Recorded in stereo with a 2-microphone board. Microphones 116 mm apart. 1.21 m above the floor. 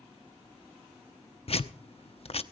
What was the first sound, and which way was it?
Tearing paper, 55° left (ahead or behind).